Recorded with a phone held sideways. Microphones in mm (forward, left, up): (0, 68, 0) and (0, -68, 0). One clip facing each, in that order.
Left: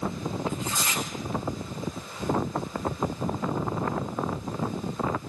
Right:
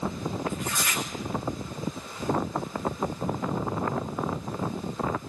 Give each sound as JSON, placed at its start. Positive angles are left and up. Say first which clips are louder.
{"t": 0.5, "sound": "tearing paper", "louder": "even", "side_deg": 25, "distance_m": 2.5}